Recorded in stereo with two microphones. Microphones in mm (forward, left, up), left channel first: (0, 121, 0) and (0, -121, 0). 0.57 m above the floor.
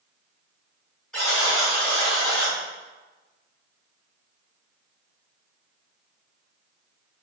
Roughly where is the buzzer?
Centre.